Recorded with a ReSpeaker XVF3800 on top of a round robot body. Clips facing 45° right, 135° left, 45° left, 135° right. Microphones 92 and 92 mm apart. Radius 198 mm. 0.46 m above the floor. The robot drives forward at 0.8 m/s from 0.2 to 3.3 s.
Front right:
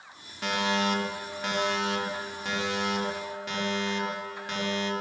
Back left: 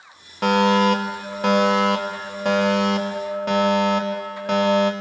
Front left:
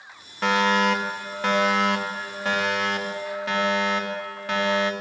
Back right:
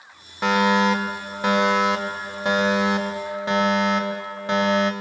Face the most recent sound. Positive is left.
turn(degrees=160)